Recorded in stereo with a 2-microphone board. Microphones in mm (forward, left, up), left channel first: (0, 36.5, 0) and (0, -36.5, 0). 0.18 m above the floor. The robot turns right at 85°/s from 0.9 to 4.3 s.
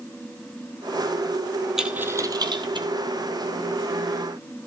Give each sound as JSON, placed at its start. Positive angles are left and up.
{"t": 1.8, "sound": "a dropped coin", "side_deg": -5, "distance_m": 2.0}